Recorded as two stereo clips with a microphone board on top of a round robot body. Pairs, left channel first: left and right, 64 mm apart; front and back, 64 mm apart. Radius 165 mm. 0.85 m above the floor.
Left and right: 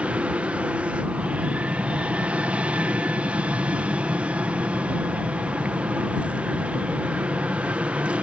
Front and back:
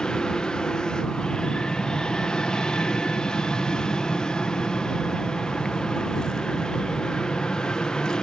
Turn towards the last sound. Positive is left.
turn(degrees=-55)